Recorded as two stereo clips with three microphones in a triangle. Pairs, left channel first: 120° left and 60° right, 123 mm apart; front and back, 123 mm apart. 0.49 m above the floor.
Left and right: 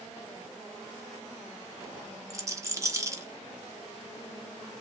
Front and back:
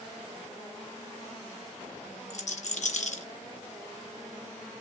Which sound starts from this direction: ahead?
A rattle, at 2.3 s.